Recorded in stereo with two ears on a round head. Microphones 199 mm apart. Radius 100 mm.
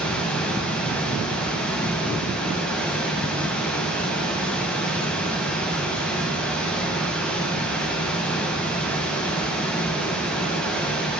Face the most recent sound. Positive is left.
turn(degrees=5)  # may be behind; listen again after turning